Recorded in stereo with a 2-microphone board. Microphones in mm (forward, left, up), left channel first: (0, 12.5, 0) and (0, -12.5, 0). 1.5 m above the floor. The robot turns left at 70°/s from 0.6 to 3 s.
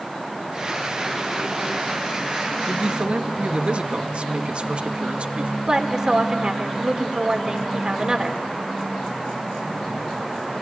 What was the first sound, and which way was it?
A man speaking, 25° right (ahead or behind).